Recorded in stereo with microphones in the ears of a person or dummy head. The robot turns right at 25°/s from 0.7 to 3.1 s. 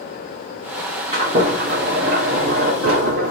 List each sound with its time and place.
1.1 s a sliding door: 145° right, 2.5 m; by 3.3 s 95° right, 2.5 m